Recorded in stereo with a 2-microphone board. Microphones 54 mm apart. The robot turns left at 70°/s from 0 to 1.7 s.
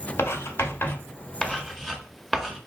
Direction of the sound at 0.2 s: 50° left (ahead or behind).